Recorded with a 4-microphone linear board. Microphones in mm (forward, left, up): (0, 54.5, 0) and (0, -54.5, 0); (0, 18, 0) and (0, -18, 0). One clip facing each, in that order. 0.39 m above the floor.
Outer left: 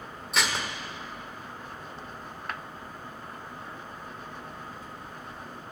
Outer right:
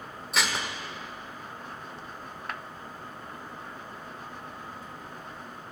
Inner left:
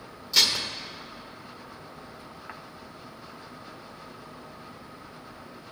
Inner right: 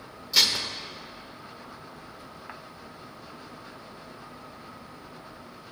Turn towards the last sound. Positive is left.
turn(degrees=0)  # may be behind; listen again after turning